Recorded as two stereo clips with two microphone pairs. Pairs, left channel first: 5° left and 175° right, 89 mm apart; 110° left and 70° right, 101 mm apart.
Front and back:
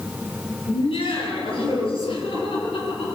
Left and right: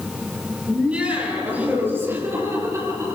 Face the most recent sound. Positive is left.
turn(degrees=-15)